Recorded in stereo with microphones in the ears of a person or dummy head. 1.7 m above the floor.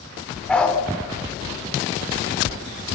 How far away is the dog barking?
About 2.5 m.